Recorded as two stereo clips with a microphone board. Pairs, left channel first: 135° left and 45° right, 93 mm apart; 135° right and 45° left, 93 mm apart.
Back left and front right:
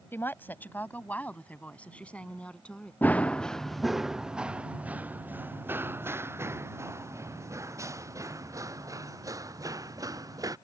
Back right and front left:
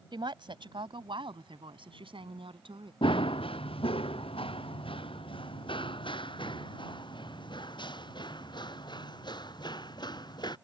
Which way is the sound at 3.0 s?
155° right.